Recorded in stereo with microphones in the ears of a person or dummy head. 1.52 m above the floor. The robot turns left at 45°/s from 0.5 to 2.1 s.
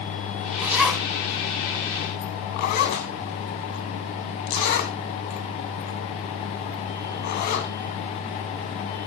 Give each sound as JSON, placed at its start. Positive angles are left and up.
{"t": 0.6, "sound": "a zipper", "side_deg": -15, "distance_m": 2.0}